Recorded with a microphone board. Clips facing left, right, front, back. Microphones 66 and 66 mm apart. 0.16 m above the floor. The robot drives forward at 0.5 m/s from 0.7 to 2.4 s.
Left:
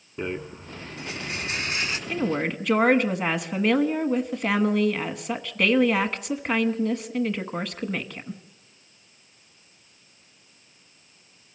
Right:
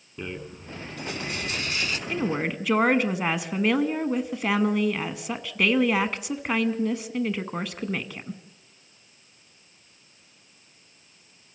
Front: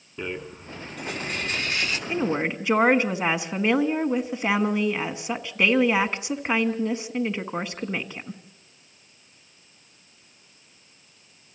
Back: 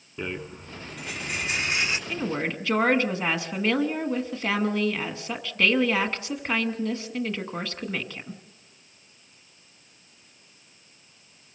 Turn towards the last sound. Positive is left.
turn(degrees=-10)